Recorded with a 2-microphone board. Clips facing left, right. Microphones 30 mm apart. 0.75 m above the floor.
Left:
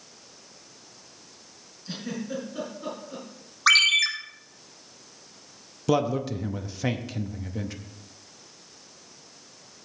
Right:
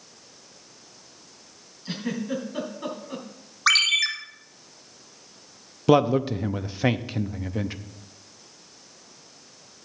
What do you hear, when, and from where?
1.9 s a giggle: 70° right (ahead or behind), 3.5 m
3.7 s a ringtone: centre (ahead or behind), 1.2 m
5.9 s a man speaking: 30° right (ahead or behind), 0.5 m